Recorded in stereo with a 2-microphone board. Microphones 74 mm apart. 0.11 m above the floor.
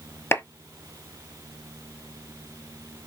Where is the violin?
I don't hear a violin.